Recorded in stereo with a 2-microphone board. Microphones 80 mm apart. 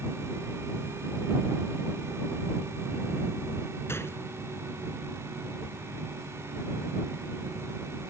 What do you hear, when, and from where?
3.9 s a gunshot: 30° left (ahead or behind)